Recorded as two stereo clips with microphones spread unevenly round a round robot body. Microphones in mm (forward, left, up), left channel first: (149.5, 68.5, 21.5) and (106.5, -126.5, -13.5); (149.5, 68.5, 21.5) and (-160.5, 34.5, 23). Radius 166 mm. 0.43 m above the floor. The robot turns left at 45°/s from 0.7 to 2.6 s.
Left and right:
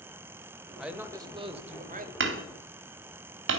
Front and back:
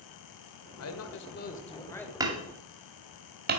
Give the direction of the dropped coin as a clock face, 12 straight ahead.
I don't hear a dropped coin.